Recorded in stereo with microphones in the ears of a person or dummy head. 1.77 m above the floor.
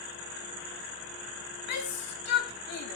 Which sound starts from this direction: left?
A shout, at 1.7 s.